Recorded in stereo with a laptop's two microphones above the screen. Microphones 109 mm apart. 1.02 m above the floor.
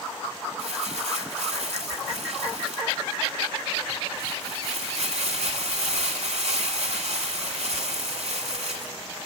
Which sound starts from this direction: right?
Crumpling, at 0.6 s.